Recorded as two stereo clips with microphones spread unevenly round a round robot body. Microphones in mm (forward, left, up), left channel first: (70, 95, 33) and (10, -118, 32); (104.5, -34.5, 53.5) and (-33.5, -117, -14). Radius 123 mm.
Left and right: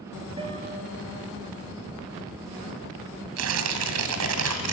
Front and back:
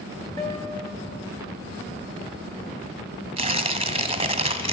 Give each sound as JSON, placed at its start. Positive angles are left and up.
{"t": 0.4, "sound": "a guitar", "azimuth_deg": -40, "distance_m": 3.0}
{"t": 3.4, "sound": "tearing paper", "azimuth_deg": -100, "distance_m": 1.8}